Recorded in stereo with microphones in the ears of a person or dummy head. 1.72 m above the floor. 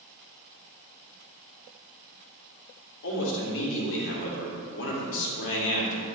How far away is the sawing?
I don't hear sawing.